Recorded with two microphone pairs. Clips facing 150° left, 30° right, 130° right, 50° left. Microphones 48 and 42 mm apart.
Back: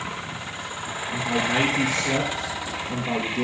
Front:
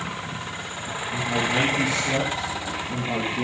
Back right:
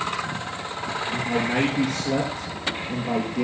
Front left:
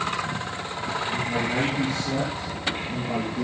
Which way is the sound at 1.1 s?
160° right.